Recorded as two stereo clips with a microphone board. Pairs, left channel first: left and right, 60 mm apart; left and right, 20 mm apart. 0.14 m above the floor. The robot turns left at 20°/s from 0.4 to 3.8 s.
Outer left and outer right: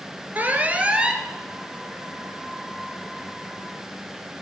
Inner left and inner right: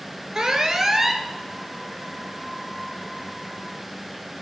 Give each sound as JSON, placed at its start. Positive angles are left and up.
{"t": 0.3, "sound": "an alarm", "side_deg": -30, "distance_m": 1.4}